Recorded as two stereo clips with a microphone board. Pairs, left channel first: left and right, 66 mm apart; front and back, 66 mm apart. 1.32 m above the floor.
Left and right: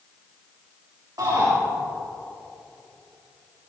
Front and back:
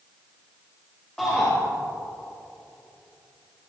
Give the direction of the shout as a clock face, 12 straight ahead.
3 o'clock.